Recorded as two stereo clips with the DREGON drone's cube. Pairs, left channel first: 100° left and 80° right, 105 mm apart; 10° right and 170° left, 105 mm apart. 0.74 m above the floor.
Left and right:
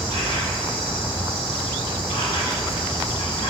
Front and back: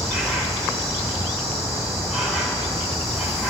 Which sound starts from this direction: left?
An insect, at 0.0 s.